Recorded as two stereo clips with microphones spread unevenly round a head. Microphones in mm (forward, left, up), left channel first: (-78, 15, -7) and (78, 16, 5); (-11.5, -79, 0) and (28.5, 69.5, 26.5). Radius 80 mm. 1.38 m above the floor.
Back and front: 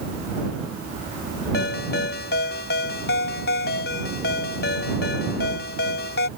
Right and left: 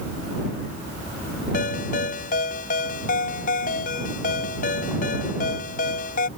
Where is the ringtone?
150° right.